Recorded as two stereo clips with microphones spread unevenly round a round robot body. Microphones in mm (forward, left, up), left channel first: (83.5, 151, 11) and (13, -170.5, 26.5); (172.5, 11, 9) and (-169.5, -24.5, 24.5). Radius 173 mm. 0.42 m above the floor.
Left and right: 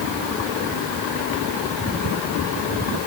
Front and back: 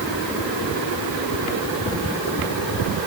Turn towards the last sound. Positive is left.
No sound to turn to.